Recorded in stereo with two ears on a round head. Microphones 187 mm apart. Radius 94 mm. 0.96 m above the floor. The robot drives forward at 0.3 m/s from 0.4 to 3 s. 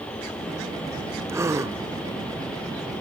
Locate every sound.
1.3 s a gasp: 15° right (ahead or behind), 1.0 m